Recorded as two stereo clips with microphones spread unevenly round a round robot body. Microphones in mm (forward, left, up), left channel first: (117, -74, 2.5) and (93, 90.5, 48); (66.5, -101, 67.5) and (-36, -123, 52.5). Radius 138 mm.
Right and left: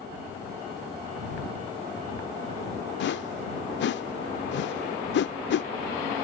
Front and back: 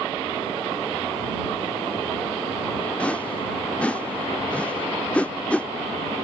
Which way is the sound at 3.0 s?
70° right.